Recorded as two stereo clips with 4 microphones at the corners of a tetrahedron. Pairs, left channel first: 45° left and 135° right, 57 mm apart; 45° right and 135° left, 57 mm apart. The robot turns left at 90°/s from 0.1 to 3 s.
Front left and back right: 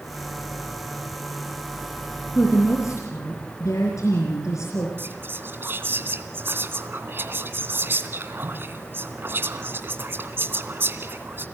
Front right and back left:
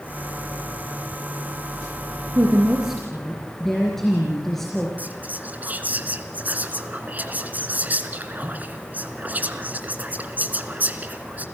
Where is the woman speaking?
100° left, 3.5 m; by 4.9 s 40° left, 3.5 m.